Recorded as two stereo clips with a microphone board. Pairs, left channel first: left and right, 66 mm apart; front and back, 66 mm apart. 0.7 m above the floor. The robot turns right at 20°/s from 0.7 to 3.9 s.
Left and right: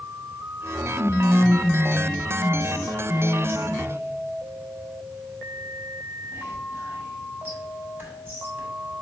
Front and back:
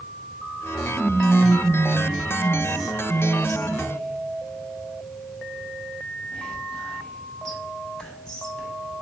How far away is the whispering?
About 1.4 m.